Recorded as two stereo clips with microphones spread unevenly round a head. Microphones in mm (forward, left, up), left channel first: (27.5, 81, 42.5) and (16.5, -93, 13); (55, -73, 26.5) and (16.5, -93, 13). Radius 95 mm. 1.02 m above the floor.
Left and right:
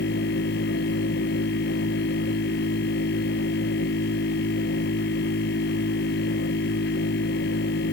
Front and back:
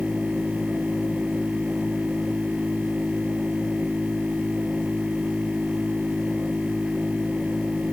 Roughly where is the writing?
I don't hear writing.